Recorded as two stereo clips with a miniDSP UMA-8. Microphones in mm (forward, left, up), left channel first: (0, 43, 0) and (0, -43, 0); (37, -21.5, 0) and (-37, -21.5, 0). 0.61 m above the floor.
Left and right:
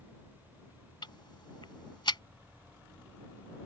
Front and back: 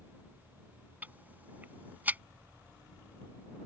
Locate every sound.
1.0 s ticking: 115° left